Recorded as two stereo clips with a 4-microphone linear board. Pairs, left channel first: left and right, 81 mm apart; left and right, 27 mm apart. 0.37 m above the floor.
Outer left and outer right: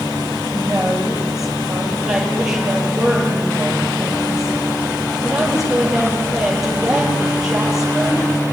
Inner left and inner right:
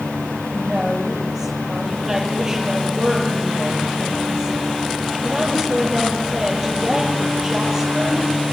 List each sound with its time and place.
0.5 s a woman speaking: 5° right (ahead or behind), 9.5 m